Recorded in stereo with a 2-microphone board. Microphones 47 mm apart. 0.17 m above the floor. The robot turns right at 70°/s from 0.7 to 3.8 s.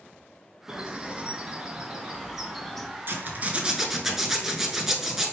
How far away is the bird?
About 0.5 m.